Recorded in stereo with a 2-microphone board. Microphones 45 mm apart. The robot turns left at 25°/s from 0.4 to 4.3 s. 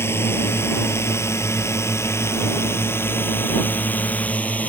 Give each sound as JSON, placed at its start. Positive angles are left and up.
{"t": 0.0, "sound": "a drone", "side_deg": 65}